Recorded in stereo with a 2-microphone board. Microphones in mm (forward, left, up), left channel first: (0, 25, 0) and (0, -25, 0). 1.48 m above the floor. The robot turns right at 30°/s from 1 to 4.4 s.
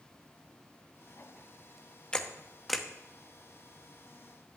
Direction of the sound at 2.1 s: 20° left (ahead or behind).